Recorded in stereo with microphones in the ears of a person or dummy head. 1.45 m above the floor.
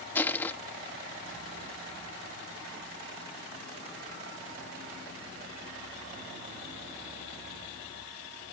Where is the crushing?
5° left (ahead or behind).